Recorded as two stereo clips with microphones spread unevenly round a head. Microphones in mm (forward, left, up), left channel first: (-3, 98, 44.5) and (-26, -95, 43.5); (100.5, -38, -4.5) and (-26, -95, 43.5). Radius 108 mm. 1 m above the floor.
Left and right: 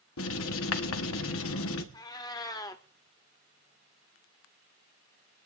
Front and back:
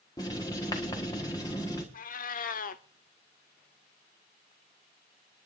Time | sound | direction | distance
0.2 | writing | 100° left | 1.3 m
1.9 | a cat meowing | 20° left | 0.7 m